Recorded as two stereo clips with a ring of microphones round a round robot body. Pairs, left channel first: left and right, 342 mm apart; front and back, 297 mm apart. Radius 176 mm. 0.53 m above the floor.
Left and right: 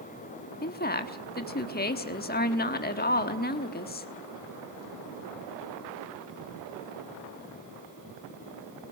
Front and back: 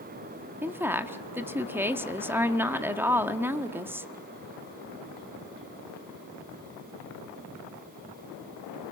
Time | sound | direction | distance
0.6 | a woman speaking | 105° left | 1.2 m